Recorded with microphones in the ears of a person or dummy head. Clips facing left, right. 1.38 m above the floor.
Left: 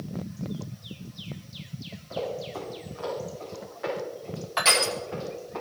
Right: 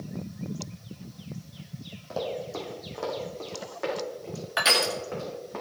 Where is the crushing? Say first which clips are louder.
Even; 5° right (ahead or behind), 1.7 m.